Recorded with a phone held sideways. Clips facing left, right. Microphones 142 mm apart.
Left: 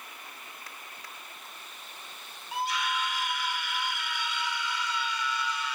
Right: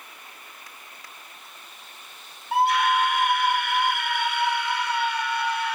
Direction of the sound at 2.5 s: 65° right (ahead or behind).